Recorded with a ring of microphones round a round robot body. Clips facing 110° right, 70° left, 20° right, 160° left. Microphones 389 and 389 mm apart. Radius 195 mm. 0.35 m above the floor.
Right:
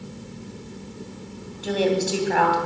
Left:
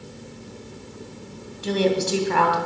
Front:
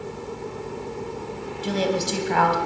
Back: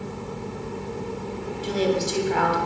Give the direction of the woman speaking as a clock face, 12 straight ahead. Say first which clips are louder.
Even, back 1 dB; 12 o'clock.